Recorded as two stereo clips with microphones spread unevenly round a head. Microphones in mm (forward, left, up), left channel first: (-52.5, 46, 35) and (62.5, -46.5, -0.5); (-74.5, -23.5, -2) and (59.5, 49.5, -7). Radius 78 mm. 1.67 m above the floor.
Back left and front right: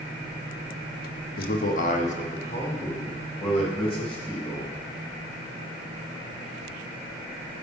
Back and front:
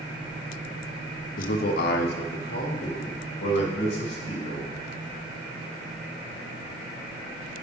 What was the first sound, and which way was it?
A man speaking, 170° left.